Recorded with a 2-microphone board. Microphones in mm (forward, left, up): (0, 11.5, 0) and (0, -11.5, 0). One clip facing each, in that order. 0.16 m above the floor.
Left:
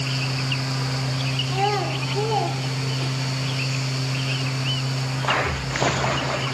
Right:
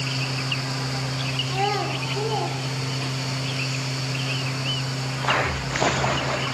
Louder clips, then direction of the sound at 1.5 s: Left 2 dB; 5° right (ahead or behind).